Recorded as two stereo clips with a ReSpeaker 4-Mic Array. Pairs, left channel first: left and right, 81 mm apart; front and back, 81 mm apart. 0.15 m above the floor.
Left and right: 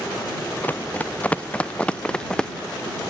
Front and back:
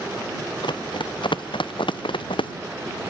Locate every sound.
0.6 s running footsteps: 20° left; by 2.5 s 10° left